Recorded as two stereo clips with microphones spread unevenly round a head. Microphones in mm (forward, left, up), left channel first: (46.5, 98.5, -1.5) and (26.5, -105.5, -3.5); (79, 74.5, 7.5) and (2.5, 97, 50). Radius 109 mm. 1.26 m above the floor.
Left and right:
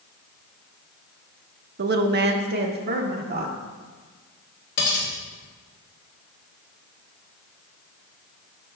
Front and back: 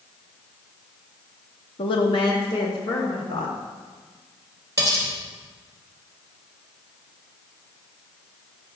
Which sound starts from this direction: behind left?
Cutlery clinking, at 4.8 s.